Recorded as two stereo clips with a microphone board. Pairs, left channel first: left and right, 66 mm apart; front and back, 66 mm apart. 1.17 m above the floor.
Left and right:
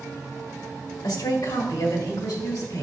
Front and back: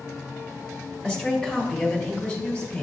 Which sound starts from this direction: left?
A woman speaking, at 1.0 s.